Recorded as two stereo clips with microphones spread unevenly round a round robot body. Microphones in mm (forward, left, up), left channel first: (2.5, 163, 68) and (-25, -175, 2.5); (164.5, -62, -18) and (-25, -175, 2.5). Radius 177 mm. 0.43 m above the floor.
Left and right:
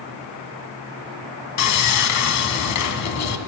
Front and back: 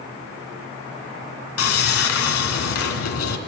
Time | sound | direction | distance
1.6 | sawing | 40° left | 2 m